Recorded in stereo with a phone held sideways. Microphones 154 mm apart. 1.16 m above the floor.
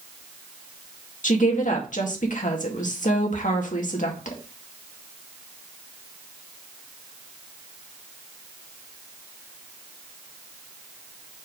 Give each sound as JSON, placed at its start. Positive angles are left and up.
{"t": 1.2, "sound": "a woman speaking", "side_deg": 60, "distance_m": 2.0}